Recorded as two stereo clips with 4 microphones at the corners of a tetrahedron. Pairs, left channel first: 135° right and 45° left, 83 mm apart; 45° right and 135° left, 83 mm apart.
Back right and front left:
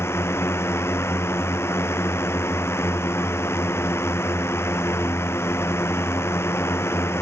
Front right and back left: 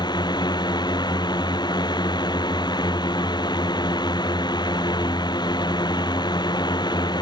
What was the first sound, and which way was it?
A drone, 75° right.